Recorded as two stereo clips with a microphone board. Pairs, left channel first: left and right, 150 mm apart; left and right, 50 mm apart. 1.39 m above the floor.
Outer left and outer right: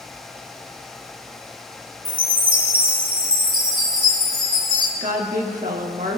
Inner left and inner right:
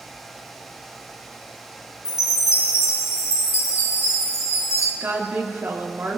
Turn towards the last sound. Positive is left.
turn(degrees=-65)  # may be behind; listen again after turning